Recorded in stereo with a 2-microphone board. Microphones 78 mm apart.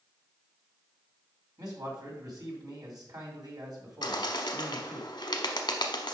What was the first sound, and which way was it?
A man speaking, 60° right (ahead or behind).